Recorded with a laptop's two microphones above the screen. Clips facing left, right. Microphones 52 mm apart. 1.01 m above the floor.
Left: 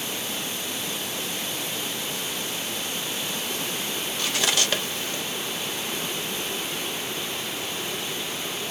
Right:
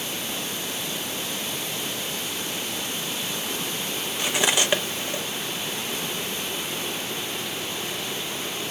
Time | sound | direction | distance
4.2 | cutlery clinking | 20° right (ahead or behind) | 0.9 m